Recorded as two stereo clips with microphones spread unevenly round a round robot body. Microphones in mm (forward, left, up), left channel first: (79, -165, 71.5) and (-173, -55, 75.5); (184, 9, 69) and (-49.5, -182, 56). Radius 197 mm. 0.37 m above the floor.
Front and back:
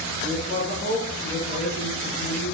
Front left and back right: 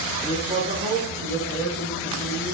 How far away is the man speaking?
About 3.5 m.